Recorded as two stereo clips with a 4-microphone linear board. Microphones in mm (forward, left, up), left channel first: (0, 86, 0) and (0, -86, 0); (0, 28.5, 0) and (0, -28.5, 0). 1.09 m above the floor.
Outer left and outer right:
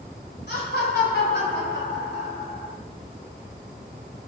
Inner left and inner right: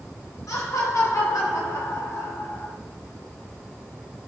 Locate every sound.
0.5 s laughter: 75° left (ahead or behind), 4 m